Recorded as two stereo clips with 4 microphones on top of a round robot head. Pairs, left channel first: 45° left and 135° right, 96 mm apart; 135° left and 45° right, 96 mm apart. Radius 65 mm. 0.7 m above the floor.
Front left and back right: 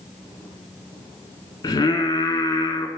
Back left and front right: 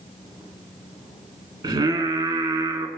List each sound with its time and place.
1.6 s singing: 5° right, 2.5 m